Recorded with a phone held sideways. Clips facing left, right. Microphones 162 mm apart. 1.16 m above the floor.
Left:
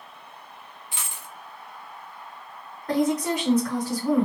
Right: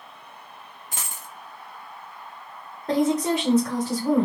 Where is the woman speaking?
30° right (ahead or behind), 1.1 m.